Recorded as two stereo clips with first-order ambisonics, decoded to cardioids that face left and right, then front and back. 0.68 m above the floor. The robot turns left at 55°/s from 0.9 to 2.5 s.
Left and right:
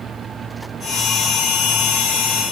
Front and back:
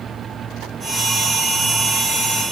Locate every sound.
Only background noise.